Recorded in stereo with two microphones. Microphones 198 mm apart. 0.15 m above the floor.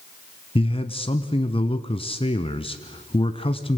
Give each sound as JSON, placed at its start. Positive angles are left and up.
{"t": 0.6, "sound": "a man speaking", "side_deg": 25, "distance_m": 1.1}